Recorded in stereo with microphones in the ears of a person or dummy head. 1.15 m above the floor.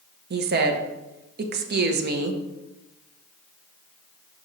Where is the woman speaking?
55° right (ahead or behind), 0.8 m.